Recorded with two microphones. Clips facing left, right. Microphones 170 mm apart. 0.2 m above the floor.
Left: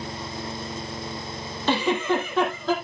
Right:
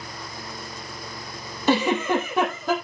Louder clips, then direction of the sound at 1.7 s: Right 2 dB; 10° right (ahead or behind).